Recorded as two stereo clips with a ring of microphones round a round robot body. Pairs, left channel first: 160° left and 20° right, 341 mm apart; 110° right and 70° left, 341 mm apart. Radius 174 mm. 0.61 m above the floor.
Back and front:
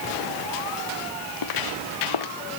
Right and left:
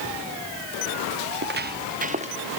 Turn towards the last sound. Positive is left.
turn(degrees=140)